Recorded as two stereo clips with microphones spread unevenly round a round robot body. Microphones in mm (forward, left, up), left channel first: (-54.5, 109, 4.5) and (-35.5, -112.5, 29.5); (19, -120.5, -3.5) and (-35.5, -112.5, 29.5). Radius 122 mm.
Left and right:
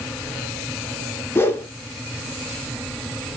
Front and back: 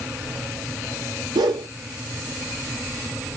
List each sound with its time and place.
1.4 s a whoosh: 170° left, 0.5 m